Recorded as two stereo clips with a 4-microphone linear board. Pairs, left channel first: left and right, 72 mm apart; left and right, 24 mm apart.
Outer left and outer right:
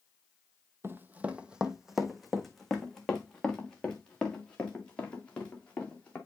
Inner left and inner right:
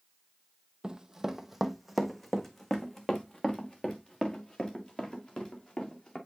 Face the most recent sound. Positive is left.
turn(degrees=20)  # may be behind; listen again after turning